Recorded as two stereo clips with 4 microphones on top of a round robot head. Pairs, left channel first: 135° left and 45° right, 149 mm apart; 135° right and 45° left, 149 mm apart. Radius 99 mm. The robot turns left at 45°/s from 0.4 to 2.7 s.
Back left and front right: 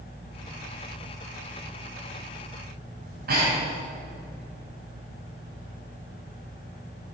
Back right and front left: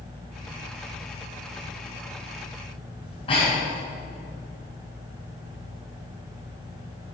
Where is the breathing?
75° right, 5 m.